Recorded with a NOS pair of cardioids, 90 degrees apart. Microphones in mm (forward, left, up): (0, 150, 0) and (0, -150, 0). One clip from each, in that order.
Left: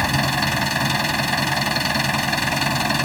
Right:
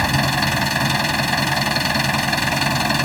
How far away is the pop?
No pop in this recording.